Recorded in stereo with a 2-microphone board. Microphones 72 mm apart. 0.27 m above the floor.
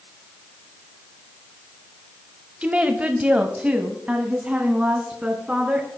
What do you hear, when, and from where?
2.6 s a woman speaking: 15° right (ahead or behind), 1.0 m